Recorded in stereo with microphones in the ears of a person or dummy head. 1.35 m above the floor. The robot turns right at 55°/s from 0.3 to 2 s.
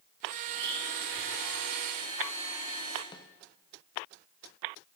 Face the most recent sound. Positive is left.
turn(degrees=20)  # may be behind; listen again after turning